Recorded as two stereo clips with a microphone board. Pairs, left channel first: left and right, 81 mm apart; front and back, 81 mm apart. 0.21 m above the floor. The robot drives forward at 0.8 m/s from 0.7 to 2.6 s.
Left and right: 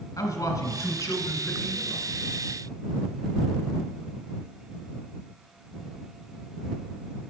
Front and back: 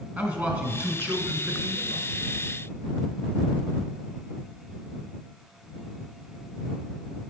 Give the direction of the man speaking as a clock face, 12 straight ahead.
8 o'clock.